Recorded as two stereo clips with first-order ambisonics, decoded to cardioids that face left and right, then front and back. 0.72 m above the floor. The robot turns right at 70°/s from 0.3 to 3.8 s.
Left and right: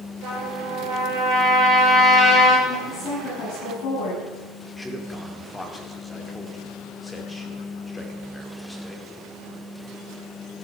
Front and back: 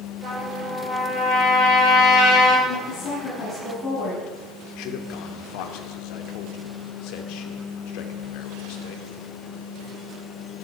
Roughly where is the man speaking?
Ahead.